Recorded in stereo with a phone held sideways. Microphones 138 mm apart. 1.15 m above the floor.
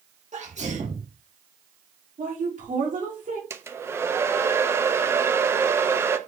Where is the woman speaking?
70° right (ahead or behind), 3 m.